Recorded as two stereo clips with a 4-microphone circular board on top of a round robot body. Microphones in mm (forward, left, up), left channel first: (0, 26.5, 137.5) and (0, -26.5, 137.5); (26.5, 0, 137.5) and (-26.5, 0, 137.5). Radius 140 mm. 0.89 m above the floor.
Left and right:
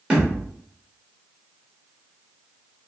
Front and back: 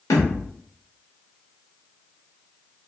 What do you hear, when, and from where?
0.1 s a thud: 15° right, 0.9 m